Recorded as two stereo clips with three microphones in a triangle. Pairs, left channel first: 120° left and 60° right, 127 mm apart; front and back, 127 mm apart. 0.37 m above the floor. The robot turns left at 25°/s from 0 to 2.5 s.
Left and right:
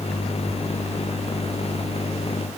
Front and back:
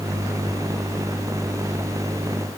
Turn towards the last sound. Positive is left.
No sound to turn to.